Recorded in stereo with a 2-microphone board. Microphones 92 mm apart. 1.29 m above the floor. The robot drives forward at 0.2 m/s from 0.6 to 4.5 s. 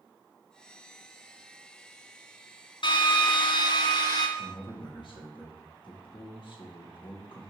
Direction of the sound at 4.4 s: 60° left (ahead or behind).